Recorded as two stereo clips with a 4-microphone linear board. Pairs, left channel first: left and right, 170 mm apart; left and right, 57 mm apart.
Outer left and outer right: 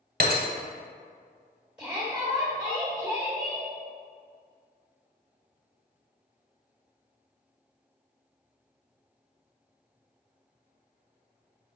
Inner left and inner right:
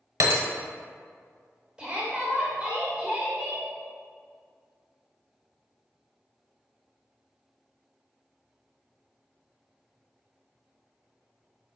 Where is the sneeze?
I don't hear a sneeze.